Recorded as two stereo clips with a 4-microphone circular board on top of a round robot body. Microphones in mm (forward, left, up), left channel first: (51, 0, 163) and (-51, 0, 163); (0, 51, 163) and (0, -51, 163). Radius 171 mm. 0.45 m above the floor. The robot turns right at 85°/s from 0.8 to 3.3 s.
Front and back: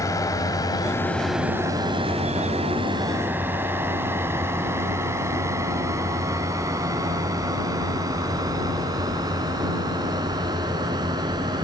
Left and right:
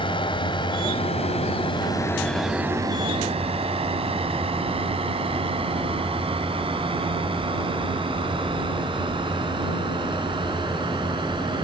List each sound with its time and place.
0.0 s a drone: 55° left; by 11.7 s 130° right